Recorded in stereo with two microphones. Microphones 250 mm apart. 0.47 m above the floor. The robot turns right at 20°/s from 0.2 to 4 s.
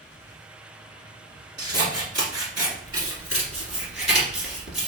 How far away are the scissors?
About 1.9 m.